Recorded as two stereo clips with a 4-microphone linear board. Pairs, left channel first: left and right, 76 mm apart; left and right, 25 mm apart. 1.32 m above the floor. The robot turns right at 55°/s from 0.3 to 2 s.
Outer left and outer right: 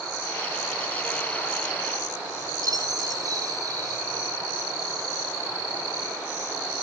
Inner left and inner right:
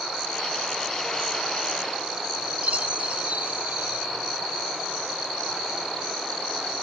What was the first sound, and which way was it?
A chime, 50° right (ahead or behind).